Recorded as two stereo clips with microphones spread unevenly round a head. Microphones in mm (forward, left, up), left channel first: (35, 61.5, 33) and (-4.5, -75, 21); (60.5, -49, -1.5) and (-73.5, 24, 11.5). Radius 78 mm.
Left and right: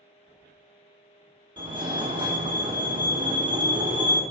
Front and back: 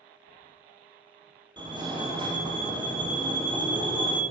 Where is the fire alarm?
150° right, 1.8 m.